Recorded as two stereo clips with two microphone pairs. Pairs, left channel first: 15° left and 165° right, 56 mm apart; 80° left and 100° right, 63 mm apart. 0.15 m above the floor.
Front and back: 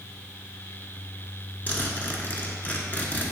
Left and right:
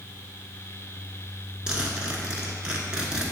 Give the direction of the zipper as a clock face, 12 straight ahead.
1 o'clock.